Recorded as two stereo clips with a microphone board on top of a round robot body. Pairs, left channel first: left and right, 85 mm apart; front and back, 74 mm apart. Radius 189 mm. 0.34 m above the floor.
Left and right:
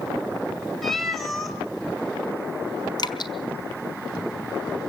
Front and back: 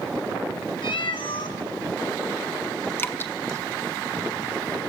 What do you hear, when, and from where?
0.8 s a cat meowing: straight ahead, 1.8 m
3.0 s dripping: 60° left, 1.5 m